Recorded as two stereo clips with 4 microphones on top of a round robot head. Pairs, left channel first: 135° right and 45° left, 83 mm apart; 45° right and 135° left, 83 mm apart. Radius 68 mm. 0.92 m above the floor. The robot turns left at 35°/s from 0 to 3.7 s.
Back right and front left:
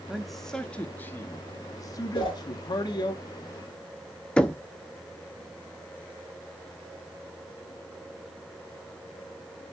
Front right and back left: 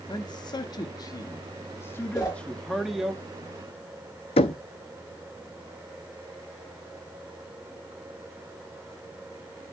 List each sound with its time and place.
0.1 s a man speaking: 40° right, 1.0 m; by 3.1 s 145° right, 1.0 m
2.1 s a whoosh: 100° right, 4 m; by 2.4 s 110° right, 4 m
4.4 s knocking: 55° right, 0.6 m